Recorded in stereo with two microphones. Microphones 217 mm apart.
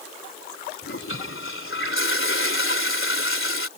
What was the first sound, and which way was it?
A toilet flushing, 70° left (ahead or behind).